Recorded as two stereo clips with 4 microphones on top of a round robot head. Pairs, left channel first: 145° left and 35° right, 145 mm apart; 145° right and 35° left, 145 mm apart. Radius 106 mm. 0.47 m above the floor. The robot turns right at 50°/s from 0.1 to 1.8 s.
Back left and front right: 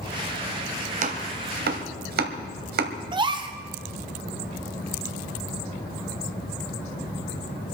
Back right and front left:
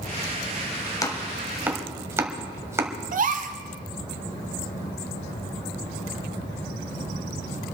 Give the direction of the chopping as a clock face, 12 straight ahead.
3 o'clock.